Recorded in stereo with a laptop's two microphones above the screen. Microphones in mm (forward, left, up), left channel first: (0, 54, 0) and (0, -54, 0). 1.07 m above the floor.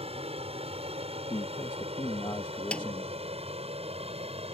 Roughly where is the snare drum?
Centre.